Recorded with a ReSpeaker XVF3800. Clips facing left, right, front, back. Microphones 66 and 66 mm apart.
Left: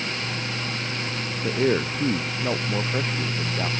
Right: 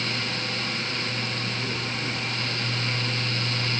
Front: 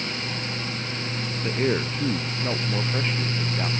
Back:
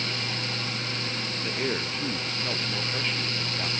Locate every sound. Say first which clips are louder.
1.4 s a man speaking: left 8 dB, front 6 dB; 70° left